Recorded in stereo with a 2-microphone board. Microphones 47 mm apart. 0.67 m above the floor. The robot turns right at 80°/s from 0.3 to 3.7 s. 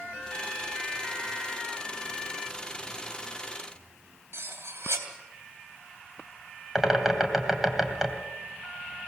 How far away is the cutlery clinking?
About 2.5 m.